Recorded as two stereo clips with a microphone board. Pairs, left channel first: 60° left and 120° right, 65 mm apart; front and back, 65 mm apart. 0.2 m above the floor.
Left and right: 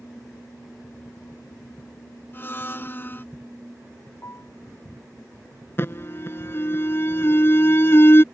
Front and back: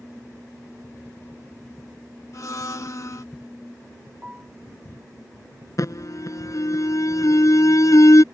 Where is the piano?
110° left.